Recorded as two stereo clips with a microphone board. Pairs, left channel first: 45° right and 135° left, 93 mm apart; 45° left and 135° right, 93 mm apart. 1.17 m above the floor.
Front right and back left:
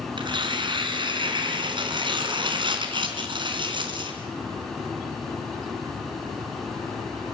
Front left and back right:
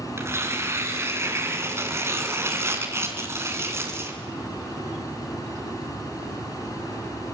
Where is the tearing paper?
165° left, 3 m.